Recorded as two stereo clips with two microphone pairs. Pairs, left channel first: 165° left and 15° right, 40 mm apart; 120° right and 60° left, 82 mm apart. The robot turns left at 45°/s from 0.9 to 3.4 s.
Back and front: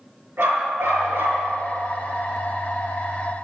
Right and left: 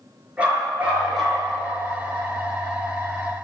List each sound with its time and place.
0.4 s a dog barking: 15° right, 6 m; by 1.4 s 40° right, 6 m